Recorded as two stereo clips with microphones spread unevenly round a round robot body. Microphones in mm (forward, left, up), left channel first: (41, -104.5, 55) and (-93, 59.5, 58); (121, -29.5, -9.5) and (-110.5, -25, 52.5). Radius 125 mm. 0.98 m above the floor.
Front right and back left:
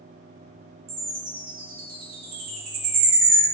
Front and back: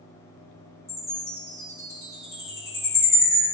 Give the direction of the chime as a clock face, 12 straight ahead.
9 o'clock.